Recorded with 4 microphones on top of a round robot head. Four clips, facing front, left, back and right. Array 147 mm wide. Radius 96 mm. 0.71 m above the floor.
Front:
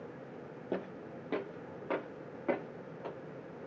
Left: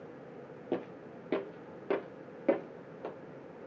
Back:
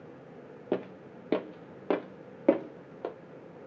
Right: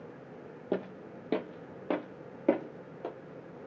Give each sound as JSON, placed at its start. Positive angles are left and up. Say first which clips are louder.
{"t": 0.7, "sound": "footsteps", "louder": "right 2 dB, back 6 dB", "azimuth_deg": -160, "distance_m": 0.8}